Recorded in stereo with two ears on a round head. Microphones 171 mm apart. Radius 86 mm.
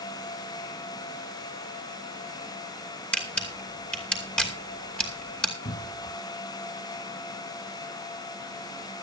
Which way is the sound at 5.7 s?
30° left (ahead or behind).